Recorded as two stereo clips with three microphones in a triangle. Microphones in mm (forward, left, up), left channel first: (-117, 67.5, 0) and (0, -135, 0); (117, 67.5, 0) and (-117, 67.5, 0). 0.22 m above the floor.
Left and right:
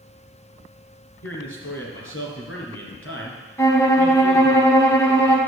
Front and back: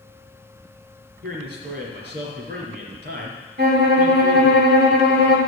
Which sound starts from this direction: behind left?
A man speaking, at 1.2 s.